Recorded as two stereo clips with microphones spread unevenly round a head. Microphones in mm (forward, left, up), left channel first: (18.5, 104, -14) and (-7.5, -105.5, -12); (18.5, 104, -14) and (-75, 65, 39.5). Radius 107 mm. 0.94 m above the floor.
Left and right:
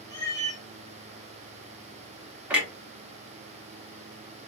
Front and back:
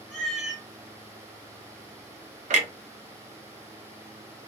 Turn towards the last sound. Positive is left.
turn(degrees=180)